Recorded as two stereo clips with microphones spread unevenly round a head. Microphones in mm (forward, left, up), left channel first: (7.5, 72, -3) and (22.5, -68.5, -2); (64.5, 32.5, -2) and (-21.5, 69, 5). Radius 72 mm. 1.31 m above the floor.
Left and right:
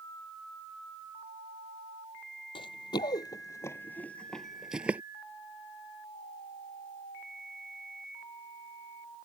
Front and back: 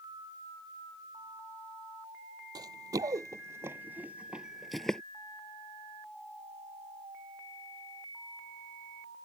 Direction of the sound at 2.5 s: 140° left.